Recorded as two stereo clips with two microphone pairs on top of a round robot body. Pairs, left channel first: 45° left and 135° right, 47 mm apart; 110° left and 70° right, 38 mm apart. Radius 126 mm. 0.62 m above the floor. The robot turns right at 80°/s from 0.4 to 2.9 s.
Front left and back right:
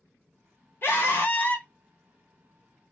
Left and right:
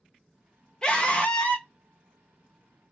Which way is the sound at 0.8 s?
45° left.